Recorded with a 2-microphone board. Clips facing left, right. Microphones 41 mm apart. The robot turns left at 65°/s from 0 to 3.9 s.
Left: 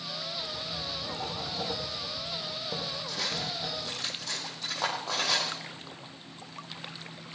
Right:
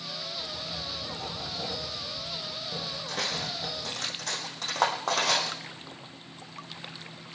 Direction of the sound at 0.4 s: 150° right.